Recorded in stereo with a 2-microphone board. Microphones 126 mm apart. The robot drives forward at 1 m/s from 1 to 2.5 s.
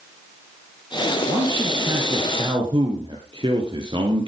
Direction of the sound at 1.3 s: 35° right (ahead or behind).